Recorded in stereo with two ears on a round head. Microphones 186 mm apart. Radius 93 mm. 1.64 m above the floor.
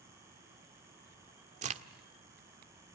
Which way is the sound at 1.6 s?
35° right (ahead or behind).